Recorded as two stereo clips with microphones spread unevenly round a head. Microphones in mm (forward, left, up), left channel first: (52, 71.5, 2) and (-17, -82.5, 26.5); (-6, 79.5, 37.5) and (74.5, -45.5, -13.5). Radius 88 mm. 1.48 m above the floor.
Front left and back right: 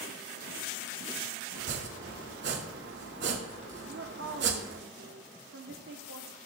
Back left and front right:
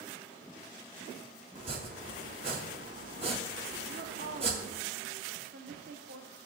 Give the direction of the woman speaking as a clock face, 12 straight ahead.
3 o'clock.